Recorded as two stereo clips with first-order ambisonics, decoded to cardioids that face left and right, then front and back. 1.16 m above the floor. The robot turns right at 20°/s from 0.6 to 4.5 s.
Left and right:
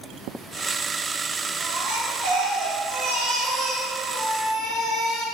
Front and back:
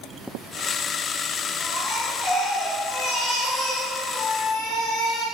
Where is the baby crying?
80° right, 3.5 m; by 5.2 s 25° right, 3.5 m.